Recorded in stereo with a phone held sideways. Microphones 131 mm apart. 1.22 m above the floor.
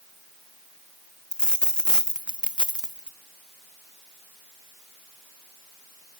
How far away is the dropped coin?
About 0.5 m.